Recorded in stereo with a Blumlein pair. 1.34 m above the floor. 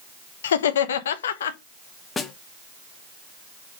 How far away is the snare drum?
About 0.7 m.